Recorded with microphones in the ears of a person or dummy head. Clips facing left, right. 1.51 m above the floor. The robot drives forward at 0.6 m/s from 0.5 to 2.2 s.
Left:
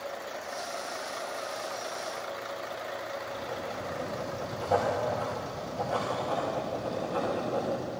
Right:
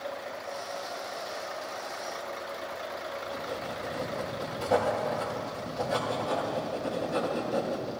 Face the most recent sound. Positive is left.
turn(degrees=-30)  # may be behind; listen again after turning